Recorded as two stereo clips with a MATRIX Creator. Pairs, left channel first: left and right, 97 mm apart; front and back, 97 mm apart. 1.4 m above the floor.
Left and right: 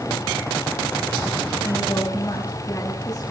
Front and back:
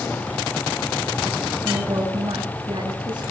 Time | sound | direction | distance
1.6 | a woman speaking | 145° left | 8 m